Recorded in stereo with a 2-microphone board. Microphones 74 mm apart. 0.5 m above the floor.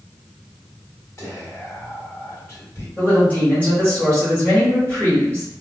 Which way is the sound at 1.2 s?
40° left (ahead or behind).